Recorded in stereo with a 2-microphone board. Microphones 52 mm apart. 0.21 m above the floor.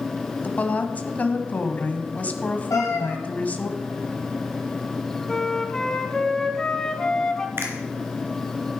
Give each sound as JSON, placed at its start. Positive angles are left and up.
{"t": 0.4, "sound": "a woman speaking", "side_deg": 30, "distance_m": 1.1}
{"t": 2.7, "sound": "a cat meowing", "side_deg": 80, "distance_m": 3.5}
{"t": 5.3, "sound": "a flute", "side_deg": 10, "distance_m": 1.0}
{"t": 7.6, "sound": "a finger snap", "side_deg": -45, "distance_m": 2.5}